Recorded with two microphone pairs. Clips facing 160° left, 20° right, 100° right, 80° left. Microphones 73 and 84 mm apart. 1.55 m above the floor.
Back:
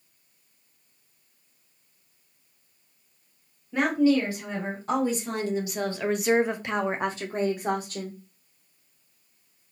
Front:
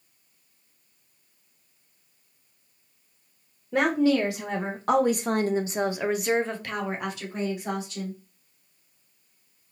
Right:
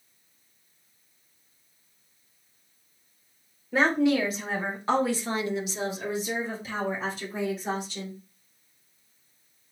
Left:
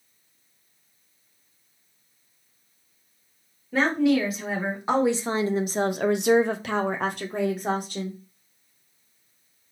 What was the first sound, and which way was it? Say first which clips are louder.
A woman speaking: even, left 1 dB; 15° right.